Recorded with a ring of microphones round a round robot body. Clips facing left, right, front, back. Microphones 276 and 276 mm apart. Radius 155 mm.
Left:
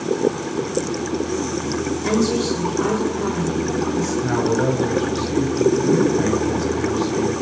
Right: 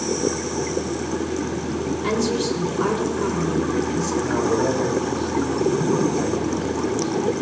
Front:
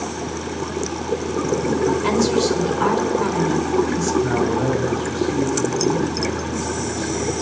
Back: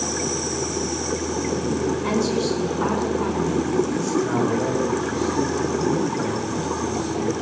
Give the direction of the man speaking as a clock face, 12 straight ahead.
11 o'clock.